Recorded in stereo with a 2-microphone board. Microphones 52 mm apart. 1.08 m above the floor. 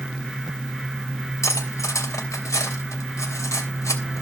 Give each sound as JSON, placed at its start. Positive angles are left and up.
{"t": 1.4, "sound": "cutlery clinking", "side_deg": 85, "distance_m": 3.0}